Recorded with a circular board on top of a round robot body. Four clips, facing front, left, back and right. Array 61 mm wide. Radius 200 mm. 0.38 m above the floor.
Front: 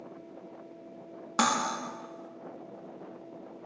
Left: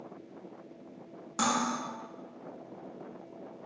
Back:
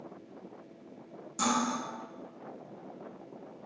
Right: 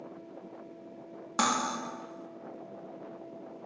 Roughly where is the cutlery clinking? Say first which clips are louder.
Right 1 dB, front 2 dB; ahead right.